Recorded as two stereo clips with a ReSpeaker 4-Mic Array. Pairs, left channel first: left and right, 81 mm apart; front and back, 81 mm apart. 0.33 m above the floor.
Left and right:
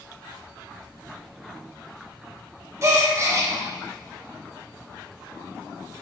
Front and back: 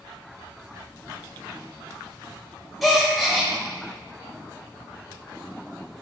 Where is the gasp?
90° right, 1.0 m.